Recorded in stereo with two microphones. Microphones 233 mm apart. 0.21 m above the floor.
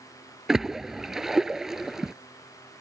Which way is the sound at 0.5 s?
Centre (ahead or behind).